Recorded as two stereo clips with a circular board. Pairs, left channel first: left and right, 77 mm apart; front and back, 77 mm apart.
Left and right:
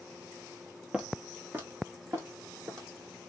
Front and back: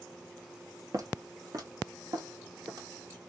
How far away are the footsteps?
About 0.9 m.